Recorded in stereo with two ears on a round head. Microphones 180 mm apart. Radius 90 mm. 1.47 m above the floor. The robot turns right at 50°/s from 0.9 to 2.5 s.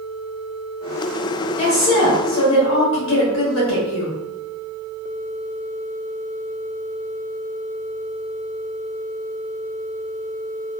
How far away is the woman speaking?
About 1.4 m.